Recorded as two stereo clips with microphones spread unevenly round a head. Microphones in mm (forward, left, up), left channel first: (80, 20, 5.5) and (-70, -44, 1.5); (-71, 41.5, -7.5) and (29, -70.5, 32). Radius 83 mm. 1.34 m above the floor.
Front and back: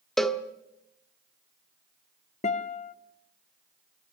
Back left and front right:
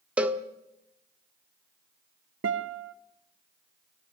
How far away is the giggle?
I don't hear a giggle.